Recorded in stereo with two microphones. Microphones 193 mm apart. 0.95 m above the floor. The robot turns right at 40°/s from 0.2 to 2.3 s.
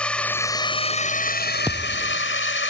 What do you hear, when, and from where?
0.0 s a drone: 5° left; by 2.7 s 90° left
1.7 s a thud: 10° right (ahead or behind); by 2.2 s 10° left (ahead or behind)